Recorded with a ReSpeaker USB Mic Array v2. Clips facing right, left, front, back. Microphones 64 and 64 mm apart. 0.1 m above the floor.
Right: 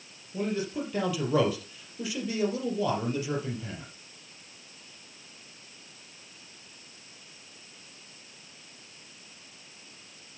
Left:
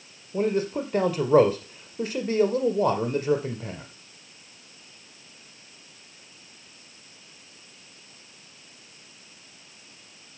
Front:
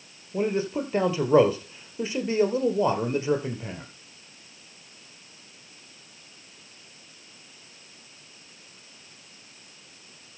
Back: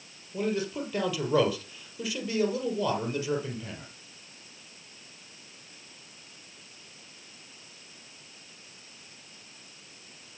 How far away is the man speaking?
About 2.5 m.